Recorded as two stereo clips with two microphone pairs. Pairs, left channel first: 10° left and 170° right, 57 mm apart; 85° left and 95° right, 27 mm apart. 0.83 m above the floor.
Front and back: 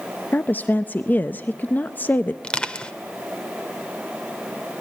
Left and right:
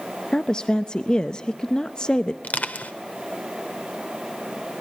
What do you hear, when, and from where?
0.3 s a woman speaking: 45° left, 0.5 m
2.4 s crushing: 80° left, 1.3 m